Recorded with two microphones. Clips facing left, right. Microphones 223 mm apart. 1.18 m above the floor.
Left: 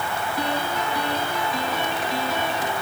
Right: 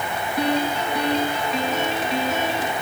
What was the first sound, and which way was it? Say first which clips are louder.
A piano: right 6 dB; 25° right (ahead or behind).